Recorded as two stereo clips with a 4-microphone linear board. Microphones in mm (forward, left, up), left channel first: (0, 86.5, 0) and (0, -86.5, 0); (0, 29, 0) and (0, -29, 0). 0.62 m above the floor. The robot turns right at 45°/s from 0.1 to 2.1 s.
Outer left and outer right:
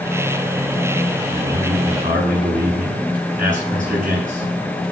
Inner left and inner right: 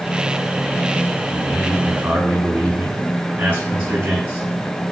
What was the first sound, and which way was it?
A man speaking, 165° right.